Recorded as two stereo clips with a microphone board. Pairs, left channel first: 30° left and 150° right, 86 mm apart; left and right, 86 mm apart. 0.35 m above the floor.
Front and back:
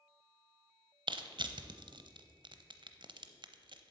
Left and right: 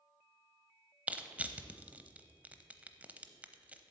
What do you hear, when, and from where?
1.1 s crushing: 160° right, 0.7 m